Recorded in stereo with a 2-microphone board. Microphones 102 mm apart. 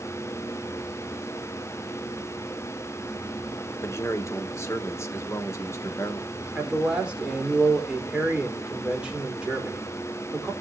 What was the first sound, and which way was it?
A man speaking, 30° left (ahead or behind).